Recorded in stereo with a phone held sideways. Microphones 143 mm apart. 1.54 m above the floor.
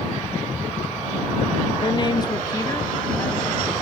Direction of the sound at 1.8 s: 35° left (ahead or behind).